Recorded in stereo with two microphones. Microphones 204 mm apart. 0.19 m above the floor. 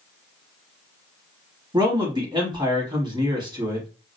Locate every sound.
1.7 s a man speaking: 20° right (ahead or behind), 1.2 m